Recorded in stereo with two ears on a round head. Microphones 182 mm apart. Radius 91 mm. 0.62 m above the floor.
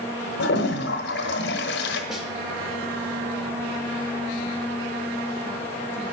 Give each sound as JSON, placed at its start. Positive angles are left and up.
{"t": 0.4, "sound": "a toilet flushing", "side_deg": 60, "distance_m": 1.0}
{"t": 2.1, "sound": "a snare drum", "side_deg": 0, "distance_m": 1.0}